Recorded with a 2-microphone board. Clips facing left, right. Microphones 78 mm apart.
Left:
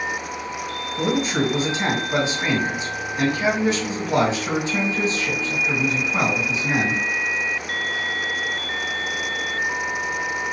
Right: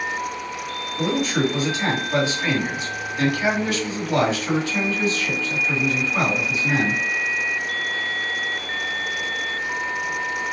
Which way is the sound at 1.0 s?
25° left (ahead or behind).